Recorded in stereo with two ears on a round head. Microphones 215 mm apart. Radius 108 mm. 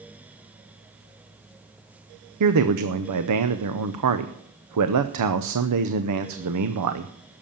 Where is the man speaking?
80° right, 0.8 m.